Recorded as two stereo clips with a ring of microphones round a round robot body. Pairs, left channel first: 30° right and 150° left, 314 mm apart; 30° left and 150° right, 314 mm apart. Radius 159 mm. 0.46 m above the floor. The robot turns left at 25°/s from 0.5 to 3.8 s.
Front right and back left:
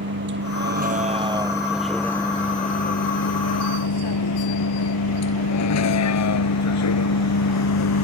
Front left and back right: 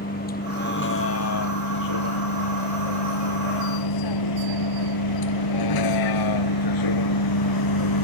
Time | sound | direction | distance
0.0 | a vehicle | 95° left | ?